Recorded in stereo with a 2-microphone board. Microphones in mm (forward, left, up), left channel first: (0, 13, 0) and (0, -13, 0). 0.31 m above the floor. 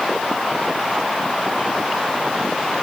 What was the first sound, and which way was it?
Only background noise.